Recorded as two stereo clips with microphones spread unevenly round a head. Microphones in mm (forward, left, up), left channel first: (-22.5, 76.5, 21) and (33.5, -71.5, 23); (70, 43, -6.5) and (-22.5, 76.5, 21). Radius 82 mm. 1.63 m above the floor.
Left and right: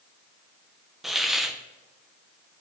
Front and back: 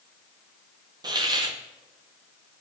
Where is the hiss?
155° right, 0.9 m.